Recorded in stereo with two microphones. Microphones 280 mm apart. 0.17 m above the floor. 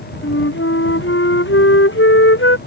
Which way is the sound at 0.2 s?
45° left (ahead or behind).